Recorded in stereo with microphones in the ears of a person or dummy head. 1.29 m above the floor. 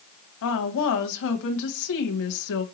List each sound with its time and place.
0.4 s a woman speaking: 70° left (ahead or behind), 0.8 m